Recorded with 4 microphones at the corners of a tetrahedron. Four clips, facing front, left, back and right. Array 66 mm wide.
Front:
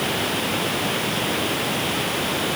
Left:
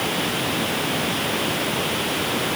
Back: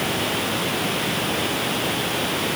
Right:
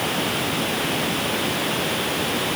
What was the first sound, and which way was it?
Only background noise.